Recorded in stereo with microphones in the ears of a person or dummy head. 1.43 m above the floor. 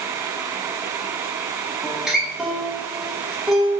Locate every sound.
1.8 s a guitar: 5° right (ahead or behind), 0.5 m